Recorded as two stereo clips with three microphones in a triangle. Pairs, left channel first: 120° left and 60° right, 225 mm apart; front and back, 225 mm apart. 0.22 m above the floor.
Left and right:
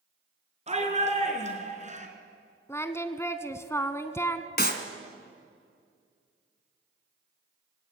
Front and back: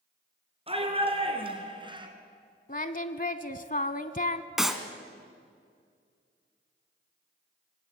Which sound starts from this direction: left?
A clap, at 4.6 s.